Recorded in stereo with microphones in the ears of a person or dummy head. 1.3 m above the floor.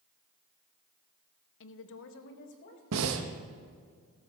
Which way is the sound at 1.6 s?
60° left (ahead or behind).